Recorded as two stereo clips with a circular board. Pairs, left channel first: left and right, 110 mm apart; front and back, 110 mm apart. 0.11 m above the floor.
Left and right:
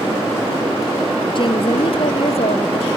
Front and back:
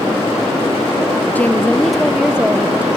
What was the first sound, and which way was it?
A woman speaking, 70° left.